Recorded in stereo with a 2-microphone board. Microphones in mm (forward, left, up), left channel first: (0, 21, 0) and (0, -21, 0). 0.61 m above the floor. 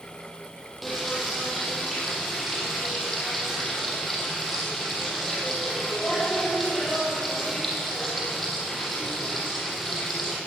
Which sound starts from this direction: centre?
Frying, at 0.8 s.